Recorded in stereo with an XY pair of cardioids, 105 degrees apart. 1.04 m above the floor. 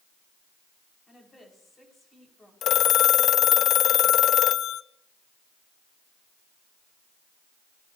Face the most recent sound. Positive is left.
turn(degrees=65)